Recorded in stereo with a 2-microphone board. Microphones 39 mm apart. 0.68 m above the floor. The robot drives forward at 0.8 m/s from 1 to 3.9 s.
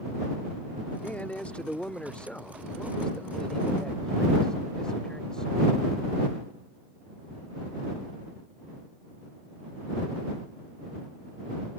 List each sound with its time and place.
1.0 s a man speaking: 45° left (ahead or behind); by 5.8 s 20° left (ahead or behind)